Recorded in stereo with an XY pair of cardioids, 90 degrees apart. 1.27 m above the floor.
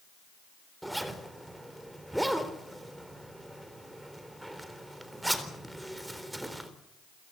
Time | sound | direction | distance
0.8 | a zipper | 5° right | 3.5 m